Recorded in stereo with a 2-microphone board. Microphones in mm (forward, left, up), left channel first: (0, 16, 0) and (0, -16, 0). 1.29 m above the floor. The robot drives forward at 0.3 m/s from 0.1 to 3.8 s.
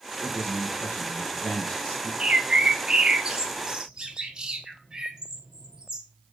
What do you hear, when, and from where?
0.2 s a man speaking: 70° left (ahead or behind), 1.6 m; by 2.1 s 60° left (ahead or behind), 1.8 m
2.2 s a bird: 35° right (ahead or behind), 1.0 m; by 6.0 s 25° right (ahead or behind), 1.4 m